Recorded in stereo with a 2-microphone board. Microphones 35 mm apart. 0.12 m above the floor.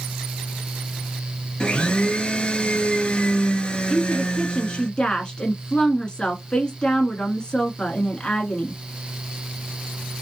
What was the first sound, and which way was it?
A blender, 30° left (ahead or behind).